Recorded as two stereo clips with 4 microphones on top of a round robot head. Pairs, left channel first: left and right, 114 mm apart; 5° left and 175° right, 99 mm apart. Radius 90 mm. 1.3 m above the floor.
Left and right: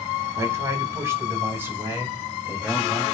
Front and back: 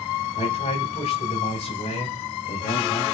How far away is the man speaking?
About 6 m.